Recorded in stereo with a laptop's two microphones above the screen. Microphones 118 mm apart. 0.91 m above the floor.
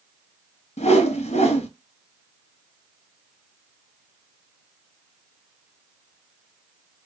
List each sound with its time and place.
0.8 s a whoosh: 75° left (ahead or behind), 0.5 m